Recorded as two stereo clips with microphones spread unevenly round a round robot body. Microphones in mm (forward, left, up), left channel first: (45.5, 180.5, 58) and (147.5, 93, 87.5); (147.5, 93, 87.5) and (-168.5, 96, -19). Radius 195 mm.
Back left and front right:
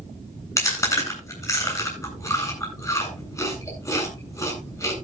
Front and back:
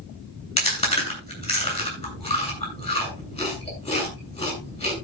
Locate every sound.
0.6 s chewing: 70° left, 9.5 m